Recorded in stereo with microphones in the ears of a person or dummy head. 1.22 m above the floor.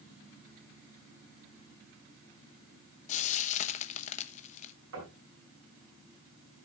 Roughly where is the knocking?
Right.